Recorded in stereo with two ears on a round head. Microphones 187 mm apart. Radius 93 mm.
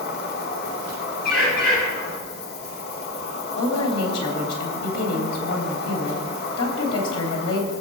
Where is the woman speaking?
80° left, 3.5 m.